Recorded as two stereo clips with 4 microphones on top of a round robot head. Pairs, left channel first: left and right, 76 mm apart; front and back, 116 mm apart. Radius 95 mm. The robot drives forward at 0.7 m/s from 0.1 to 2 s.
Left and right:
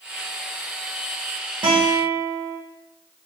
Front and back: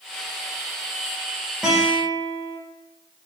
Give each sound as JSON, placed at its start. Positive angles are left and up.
{"t": 1.6, "sound": "a guitar", "azimuth_deg": -95, "distance_m": 1.3}